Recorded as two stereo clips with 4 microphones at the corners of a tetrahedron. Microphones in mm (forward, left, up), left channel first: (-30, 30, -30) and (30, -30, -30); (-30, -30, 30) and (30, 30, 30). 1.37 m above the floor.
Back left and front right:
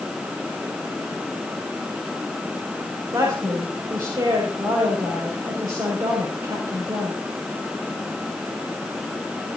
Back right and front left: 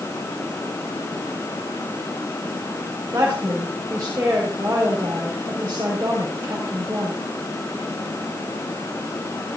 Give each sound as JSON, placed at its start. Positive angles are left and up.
{"t": 3.1, "sound": "a woman speaking", "azimuth_deg": -15, "distance_m": 5.5}